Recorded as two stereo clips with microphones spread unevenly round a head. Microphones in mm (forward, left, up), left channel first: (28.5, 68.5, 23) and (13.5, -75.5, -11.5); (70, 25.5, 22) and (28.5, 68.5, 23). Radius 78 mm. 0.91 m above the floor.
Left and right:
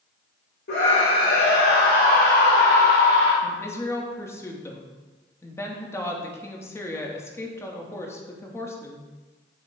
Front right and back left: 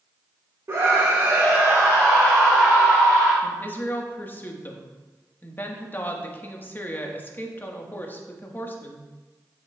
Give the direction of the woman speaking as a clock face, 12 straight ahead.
12 o'clock.